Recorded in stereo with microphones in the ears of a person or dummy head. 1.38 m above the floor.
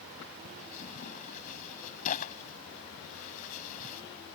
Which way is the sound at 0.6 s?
40° left (ahead or behind).